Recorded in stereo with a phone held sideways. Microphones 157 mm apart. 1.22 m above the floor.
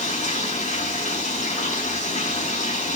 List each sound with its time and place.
0.0 s running water: 50° left (ahead or behind), 4 m